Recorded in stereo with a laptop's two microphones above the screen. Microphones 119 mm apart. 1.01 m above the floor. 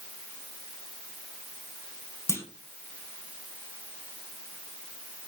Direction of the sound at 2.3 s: 25° left (ahead or behind).